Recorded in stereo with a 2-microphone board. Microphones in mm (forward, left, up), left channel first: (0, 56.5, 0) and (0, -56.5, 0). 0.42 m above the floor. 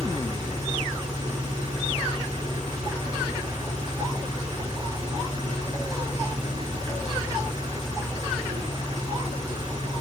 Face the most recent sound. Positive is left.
turn(degrees=-35)  # may be behind; listen again after turning